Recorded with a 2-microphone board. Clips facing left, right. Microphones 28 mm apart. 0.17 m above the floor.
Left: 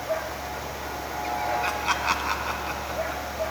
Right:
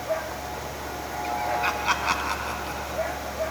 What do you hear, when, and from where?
1.6 s laughter: 15° right (ahead or behind), 1.3 m; by 3.2 s 40° left (ahead or behind), 1.4 m